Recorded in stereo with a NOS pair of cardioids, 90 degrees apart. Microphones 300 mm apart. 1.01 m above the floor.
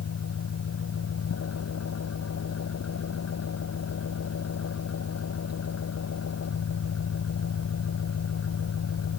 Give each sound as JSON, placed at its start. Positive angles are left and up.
{"t": 0.0, "sound": "an engine running", "azimuth_deg": 50}